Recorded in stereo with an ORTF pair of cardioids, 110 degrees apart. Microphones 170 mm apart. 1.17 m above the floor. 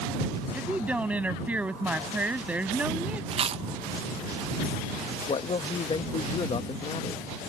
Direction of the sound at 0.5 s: 10° right.